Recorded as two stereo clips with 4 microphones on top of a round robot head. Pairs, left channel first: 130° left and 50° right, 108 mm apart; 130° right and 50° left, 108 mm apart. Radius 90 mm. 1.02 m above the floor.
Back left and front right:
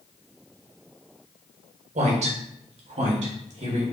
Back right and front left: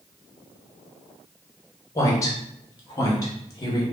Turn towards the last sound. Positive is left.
turn(degrees=-70)